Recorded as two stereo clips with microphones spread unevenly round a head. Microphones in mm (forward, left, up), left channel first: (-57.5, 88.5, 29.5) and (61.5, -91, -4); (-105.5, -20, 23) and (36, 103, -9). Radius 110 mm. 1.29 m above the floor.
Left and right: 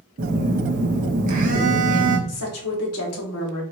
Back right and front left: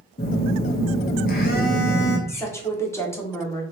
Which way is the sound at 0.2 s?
110° right.